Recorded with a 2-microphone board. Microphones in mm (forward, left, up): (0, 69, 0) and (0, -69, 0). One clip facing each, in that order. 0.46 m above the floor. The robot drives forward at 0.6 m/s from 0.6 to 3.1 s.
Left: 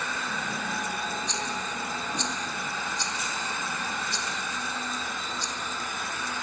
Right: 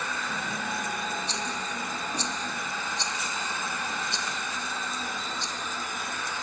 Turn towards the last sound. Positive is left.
turn(degrees=-20)  # may be behind; listen again after turning